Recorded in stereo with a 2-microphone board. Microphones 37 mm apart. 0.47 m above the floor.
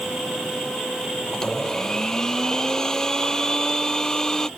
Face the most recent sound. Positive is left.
turn(degrees=20)  # may be behind; listen again after turning